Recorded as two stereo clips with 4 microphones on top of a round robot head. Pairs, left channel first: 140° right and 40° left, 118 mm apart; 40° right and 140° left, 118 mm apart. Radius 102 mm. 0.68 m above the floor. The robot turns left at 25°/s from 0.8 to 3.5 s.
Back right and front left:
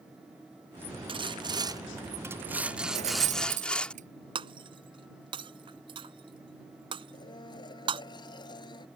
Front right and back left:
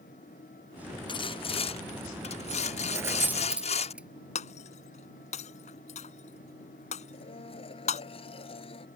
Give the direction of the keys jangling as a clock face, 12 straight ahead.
10 o'clock.